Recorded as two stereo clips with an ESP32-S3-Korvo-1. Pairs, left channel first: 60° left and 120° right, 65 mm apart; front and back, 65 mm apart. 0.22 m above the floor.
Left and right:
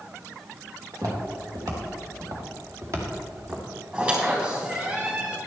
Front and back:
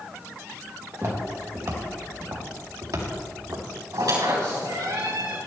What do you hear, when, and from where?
0.9 s footsteps: 140° right, 3.5 m; by 3.6 s 170° right, 3.5 m
3.9 s a squeak: 175° left, 4.5 m